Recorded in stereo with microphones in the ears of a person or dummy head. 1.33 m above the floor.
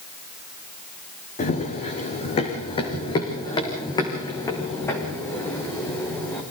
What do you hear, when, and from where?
1.4 s running footsteps: 40° left (ahead or behind), 3.5 m; by 6.4 s 15° left (ahead or behind), 5 m